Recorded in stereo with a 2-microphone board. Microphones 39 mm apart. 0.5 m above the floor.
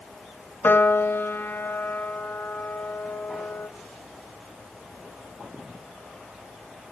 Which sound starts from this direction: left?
A piano, at 0.6 s.